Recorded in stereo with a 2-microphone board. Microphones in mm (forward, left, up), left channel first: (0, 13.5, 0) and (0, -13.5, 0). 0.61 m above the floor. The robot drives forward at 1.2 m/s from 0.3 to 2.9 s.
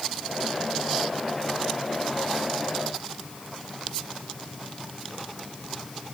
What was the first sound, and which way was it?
Only background noise.